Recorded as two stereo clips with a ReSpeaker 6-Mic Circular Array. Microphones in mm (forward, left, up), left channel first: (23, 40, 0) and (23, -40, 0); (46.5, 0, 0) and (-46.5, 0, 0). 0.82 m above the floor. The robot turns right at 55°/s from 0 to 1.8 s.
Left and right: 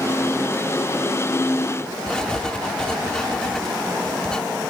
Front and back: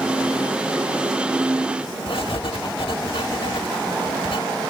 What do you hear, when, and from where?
2.1 s writing: 10° left